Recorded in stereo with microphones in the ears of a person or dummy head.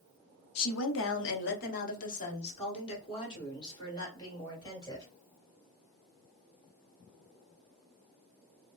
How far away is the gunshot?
No gunshot in this recording.